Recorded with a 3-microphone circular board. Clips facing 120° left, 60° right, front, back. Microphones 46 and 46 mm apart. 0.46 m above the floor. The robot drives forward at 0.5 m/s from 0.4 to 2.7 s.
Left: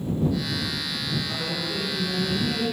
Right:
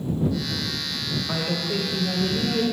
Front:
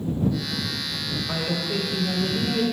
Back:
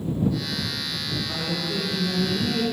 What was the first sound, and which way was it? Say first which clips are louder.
A woman speaking: right 3 dB, front 4 dB; 45° right.